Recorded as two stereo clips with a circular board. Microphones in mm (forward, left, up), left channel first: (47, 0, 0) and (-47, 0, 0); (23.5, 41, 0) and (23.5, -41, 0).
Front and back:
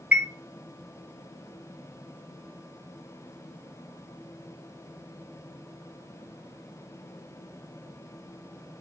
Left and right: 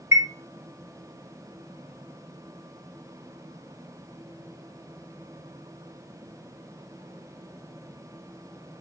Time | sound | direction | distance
0.1 | a chime | 110° right | 0.8 m